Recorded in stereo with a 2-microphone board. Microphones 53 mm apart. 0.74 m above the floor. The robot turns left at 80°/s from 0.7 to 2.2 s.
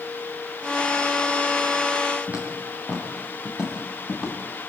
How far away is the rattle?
No rattle in this recording.